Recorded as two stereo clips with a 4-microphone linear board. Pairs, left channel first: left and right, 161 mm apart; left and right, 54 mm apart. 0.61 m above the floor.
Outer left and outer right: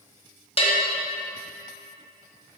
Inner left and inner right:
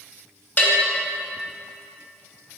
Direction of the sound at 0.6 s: 35° left (ahead or behind).